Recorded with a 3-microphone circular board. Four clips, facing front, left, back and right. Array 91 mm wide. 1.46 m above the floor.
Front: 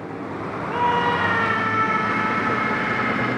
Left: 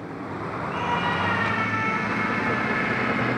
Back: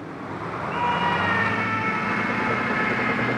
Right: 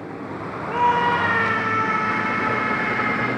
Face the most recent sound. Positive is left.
turn(degrees=-45)